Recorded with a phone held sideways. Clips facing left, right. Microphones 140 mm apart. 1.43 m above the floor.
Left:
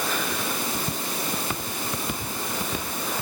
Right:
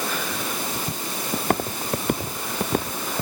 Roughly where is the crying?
I don't hear crying.